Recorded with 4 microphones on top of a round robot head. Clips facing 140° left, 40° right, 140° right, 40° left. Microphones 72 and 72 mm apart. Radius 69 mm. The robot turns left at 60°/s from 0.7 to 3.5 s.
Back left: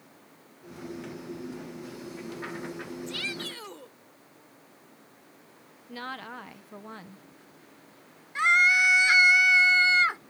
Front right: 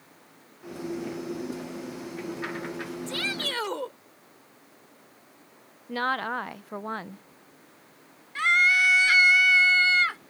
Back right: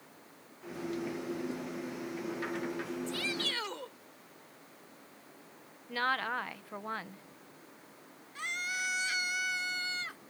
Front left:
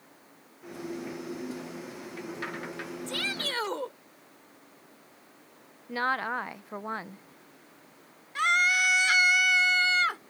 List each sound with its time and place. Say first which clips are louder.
3.1 s a shout: front right 4 dB, front left 2 dB; 15° left; by 3.9 s 10° right
5.9 s a woman speaking: front right 11 dB, front left 3 dB; 25° right
8.3 s a scream: even, front left 13 dB; 70° left